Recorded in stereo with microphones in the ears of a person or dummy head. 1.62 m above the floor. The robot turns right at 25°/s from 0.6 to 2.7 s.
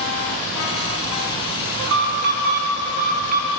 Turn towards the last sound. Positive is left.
turn(degrees=-55)  # may be behind; listen again after turning